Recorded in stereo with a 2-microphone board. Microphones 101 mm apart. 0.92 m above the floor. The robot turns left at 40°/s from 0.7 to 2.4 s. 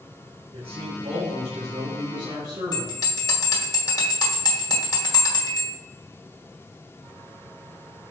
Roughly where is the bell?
Left.